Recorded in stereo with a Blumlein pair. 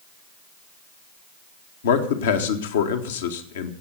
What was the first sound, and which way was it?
A man speaking, 60° left.